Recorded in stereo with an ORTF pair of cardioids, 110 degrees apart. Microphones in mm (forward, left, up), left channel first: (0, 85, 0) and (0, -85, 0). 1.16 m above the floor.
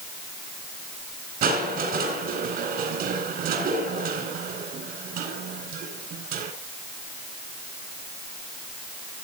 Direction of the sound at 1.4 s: 65° right.